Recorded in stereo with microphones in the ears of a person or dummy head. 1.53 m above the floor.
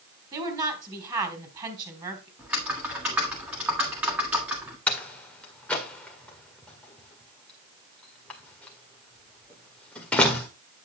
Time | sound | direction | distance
0.3 | a woman speaking | 20° right (ahead or behind) | 3.5 m
2.4 | typing on a keyboard | 10° right (ahead or behind) | 1.8 m
4.9 | a door slam | 5° left (ahead or behind) | 1.7 m